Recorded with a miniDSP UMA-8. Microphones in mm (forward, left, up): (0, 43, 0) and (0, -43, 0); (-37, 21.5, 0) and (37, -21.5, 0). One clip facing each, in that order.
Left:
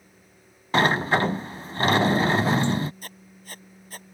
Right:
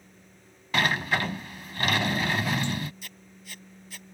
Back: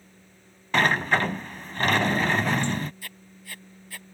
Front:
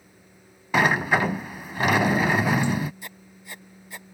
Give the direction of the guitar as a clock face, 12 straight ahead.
No guitar in this recording.